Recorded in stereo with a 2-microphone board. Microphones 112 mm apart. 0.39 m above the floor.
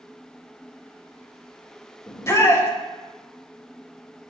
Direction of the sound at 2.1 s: 25° left (ahead or behind).